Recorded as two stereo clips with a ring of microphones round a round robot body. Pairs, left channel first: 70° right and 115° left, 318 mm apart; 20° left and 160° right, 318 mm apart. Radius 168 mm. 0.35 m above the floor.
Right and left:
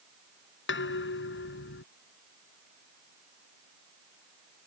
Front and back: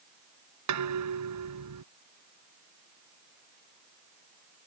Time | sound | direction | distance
0.7 | dishes clattering | 120° right | ?